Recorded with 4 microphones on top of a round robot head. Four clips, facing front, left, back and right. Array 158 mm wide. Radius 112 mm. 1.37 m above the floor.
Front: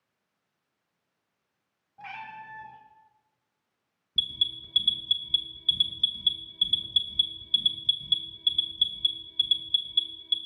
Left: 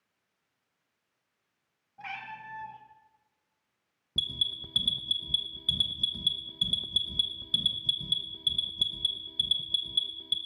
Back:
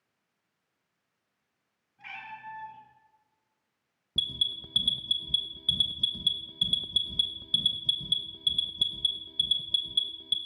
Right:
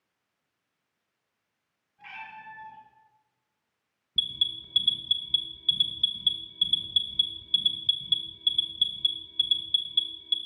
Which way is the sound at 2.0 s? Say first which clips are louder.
Left 2 dB, front 3 dB; 35° left.